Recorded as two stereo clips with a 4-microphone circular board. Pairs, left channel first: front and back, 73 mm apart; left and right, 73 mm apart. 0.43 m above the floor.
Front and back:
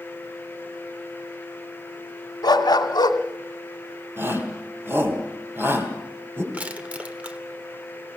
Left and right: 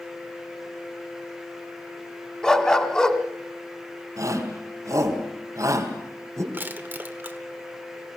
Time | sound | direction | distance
2.4 | a dog barking | 10° left | 1.4 m
4.2 | a shout | 125° right | 3 m
6.5 | crushing | 125° right | 1.3 m